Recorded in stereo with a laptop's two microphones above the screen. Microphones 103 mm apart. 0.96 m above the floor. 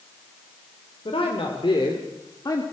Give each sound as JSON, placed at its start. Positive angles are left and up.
{"t": 1.1, "sound": "a woman speaking", "side_deg": 65, "distance_m": 3.0}